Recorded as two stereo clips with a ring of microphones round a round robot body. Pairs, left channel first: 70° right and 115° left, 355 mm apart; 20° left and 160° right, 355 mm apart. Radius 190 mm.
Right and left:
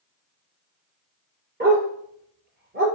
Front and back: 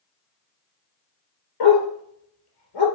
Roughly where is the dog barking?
Ahead left.